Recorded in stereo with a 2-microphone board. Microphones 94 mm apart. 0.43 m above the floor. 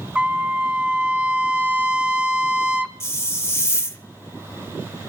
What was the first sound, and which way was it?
A trumpet, 15° right (ahead or behind).